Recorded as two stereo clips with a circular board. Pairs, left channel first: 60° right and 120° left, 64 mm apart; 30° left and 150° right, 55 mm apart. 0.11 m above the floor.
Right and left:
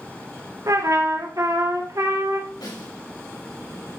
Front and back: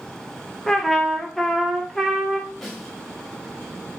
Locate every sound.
0.7 s a trumpet: 110° left, 2.5 m
2.6 s a snare drum: 50° right, 6 m